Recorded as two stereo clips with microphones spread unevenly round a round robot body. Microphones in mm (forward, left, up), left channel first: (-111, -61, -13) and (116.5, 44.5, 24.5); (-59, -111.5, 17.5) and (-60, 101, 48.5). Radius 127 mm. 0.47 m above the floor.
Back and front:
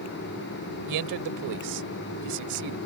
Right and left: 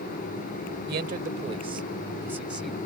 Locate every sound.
0.9 s a man speaking: 40° left; by 2.8 s straight ahead